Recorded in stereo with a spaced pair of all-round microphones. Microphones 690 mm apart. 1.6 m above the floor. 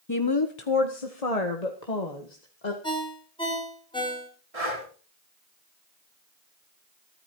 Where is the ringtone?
5° left (ahead or behind), 5.5 m.